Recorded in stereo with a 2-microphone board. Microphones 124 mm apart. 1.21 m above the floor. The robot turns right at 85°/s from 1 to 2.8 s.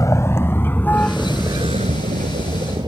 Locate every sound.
0.0 s a vehicle: 25° left (ahead or behind); by 2.9 s 35° right (ahead or behind)